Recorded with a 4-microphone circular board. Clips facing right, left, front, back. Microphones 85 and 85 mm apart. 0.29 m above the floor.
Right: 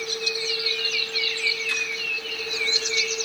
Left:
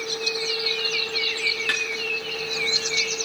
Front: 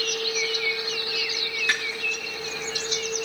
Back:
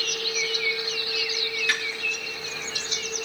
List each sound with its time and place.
1.7 s a snare drum: 60° left, 4.5 m